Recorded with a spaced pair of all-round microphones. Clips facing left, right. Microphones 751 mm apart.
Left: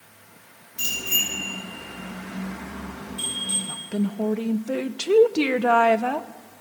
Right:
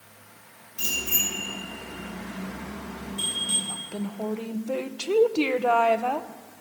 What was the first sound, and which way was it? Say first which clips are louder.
A bicycle bell: right 1 dB; 55° left (ahead or behind).